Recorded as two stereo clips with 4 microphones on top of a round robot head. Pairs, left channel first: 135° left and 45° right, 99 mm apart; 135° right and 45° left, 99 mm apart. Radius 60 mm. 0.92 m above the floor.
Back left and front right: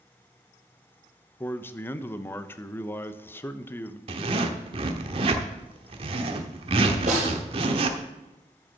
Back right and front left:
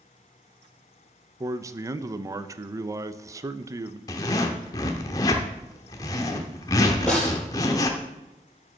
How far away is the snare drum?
About 4 m.